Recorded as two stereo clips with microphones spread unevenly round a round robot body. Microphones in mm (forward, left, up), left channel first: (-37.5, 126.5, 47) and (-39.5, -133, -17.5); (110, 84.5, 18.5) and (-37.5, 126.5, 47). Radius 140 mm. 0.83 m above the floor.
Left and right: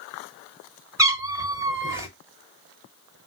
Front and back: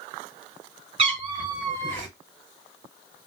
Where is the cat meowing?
Straight behind, 0.7 m.